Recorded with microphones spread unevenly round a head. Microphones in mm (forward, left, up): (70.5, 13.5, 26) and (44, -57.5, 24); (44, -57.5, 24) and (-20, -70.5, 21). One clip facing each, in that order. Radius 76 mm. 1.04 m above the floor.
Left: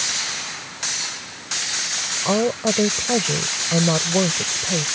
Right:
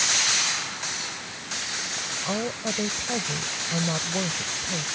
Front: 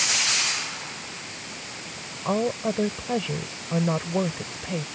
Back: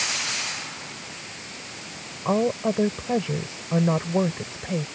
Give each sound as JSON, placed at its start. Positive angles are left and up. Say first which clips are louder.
{"t": 2.2, "sound": "a woman speaking", "louder": "left 10 dB, back 2 dB", "azimuth_deg": 110}